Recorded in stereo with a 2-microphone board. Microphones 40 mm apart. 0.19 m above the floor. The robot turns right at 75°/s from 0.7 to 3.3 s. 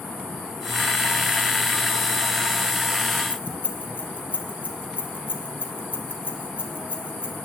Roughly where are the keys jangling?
Left.